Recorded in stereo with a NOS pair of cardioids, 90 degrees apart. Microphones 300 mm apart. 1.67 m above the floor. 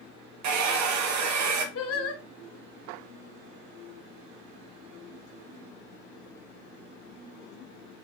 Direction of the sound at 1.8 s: 50° left.